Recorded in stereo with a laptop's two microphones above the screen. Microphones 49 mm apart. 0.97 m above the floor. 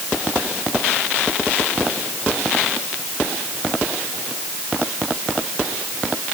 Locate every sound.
Only background noise.